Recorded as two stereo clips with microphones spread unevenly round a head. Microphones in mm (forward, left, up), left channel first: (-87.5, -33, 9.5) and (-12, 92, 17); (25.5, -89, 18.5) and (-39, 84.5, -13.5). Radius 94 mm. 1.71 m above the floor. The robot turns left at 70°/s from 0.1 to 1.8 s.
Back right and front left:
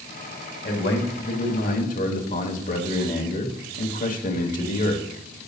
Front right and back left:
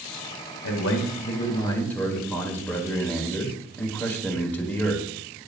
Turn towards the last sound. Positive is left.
turn(degrees=-150)